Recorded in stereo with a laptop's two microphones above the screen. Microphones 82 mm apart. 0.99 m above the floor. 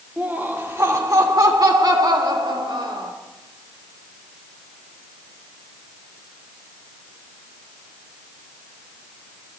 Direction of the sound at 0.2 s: 20° right (ahead or behind).